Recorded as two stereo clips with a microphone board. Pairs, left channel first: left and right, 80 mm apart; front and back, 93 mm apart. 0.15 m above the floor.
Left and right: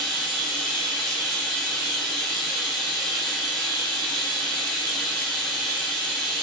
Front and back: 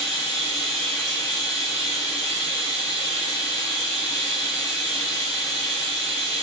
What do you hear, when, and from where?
0.0 s running water: 5° right, 1.4 m